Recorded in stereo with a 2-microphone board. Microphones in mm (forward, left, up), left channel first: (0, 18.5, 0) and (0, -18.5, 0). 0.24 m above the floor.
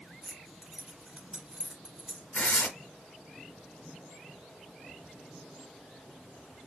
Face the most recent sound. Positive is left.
turn(degrees=45)  # may be behind; listen again after turning